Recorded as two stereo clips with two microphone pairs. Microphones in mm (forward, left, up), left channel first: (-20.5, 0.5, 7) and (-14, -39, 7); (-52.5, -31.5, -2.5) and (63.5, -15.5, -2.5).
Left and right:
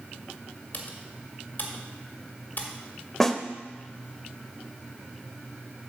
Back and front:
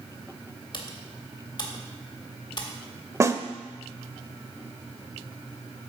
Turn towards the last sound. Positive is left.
turn(degrees=30)